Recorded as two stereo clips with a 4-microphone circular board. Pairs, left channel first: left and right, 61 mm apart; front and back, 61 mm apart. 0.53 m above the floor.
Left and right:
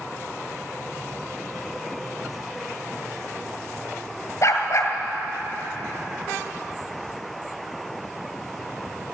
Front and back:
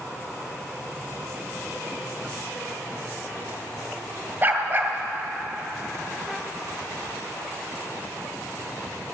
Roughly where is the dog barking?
Behind left.